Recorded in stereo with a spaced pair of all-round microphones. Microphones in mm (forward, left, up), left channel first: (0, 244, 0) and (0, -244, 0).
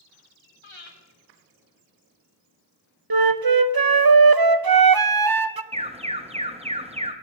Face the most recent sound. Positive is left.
turn(degrees=-15)  # may be behind; listen again after turning